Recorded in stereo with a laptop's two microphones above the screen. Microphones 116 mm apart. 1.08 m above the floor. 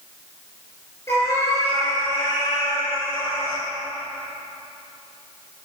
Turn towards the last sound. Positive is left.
turn(degrees=35)  # may be behind; listen again after turning